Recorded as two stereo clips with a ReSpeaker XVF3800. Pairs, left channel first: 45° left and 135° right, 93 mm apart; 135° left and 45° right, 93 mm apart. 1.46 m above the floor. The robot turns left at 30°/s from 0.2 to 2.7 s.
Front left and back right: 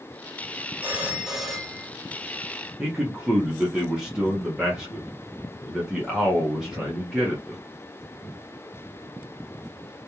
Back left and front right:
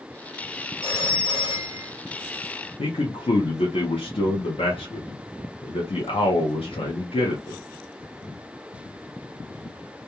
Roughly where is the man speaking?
Behind left.